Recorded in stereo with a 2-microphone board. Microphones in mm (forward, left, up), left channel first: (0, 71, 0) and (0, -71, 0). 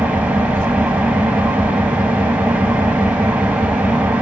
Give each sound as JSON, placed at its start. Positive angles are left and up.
{"t": 0.0, "sound": "an engine running", "side_deg": -10, "distance_m": 0.9}